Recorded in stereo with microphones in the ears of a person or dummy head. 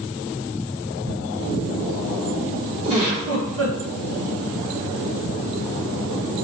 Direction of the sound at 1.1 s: 70° left (ahead or behind).